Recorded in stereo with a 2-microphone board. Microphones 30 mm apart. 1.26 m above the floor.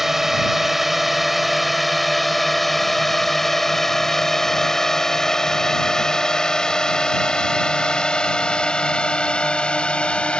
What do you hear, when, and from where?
0.0 s a drone: 10° right (ahead or behind); by 10.4 s 40° left (ahead or behind)